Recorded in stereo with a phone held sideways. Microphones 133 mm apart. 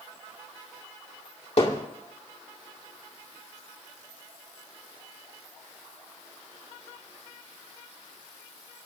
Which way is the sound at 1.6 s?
55° left (ahead or behind).